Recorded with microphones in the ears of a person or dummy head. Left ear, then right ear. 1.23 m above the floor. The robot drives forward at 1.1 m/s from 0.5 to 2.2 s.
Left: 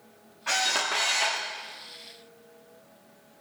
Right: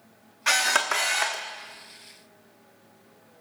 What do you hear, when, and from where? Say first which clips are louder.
0.5 s a camera shutter: right 4 dB; 50° right (ahead or behind), 1.0 m; by 1.4 s 25° right (ahead or behind), 1.8 m